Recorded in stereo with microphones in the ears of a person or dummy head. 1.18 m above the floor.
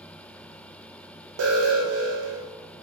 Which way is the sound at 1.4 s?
70° right (ahead or behind).